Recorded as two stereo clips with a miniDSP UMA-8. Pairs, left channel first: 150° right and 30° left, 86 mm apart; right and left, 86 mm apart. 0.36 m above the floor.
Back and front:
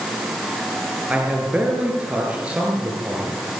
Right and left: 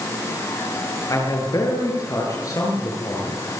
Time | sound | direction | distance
1.1 | a man speaking | 45° right | 7.5 m